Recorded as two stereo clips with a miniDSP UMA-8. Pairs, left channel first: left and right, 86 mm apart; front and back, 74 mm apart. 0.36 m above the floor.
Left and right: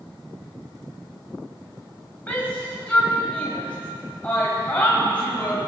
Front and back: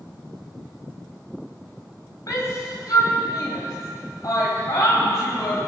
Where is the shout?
20° left, 2.5 m.